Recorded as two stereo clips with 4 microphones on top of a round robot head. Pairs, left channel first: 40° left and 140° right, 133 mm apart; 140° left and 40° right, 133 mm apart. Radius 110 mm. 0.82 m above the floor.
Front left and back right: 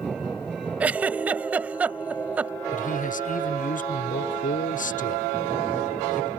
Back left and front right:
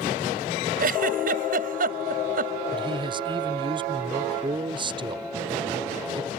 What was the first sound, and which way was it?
A giggle, 65° right.